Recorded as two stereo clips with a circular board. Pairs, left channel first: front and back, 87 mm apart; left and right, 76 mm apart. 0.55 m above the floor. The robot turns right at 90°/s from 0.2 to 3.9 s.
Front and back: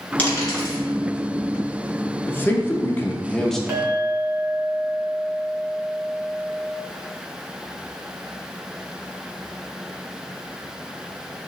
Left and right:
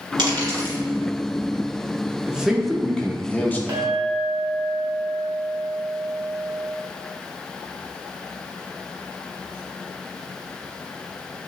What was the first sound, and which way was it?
A dropped coin, 75° right.